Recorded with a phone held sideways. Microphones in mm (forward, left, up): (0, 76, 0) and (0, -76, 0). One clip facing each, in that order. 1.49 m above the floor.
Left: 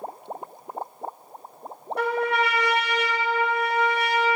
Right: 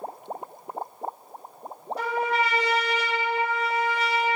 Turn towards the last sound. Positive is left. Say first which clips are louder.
# left 2 dB
turn(degrees=65)  # may be behind; listen again after turning